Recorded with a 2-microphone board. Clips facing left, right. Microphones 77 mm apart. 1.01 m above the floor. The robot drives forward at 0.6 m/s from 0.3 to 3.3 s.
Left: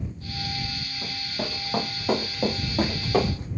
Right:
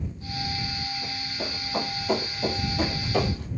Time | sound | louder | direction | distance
1.0 | running footsteps | left 1 dB | 60° left (ahead or behind) | 2 m